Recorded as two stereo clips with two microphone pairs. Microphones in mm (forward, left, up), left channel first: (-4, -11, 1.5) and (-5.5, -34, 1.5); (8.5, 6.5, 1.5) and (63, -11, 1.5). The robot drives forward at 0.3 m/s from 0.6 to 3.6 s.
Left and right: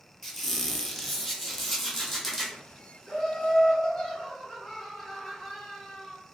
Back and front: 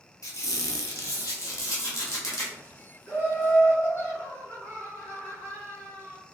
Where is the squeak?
170° left, 0.7 m; by 2.6 s 175° left, 1.3 m.